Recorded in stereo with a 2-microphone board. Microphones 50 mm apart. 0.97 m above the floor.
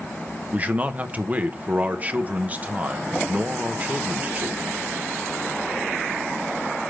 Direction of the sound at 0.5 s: 35° right (ahead or behind).